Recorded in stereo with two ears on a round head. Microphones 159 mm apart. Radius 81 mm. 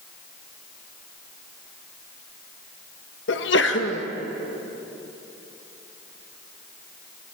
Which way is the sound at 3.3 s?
70° left (ahead or behind).